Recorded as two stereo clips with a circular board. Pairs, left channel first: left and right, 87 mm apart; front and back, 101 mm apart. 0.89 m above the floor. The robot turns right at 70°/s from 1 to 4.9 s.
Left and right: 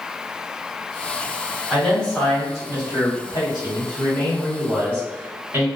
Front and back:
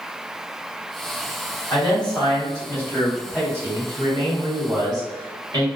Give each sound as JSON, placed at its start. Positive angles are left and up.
{"t": 1.7, "sound": "a man speaking", "azimuth_deg": -10, "distance_m": 1.4}